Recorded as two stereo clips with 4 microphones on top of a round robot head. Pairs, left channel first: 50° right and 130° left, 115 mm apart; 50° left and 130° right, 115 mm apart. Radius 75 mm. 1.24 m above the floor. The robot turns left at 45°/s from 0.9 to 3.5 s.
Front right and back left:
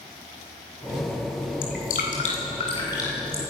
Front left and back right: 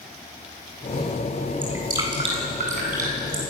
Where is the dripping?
55° right, 8 m; by 3.4 s 135° right, 8 m.